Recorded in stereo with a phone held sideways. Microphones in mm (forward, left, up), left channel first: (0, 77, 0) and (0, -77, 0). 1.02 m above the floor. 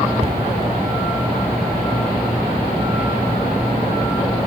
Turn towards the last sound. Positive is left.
turn(degrees=-40)  # may be behind; listen again after turning